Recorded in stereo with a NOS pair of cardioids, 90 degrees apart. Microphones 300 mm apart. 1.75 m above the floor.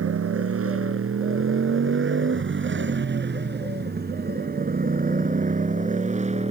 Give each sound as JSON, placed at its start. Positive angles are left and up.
{"t": 0.0, "sound": "a motorcycle", "azimuth_deg": -50}